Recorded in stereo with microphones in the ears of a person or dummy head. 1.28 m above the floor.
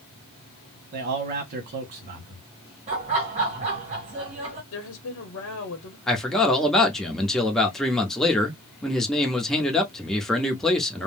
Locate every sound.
0.9 s a man speaking: 45° right (ahead or behind), 1.1 m
2.9 s laughter: 35° right (ahead or behind), 1.5 m
4.7 s a woman speaking: 65° left (ahead or behind), 0.8 m
6.1 s a man speaking: 5° left (ahead or behind), 0.7 m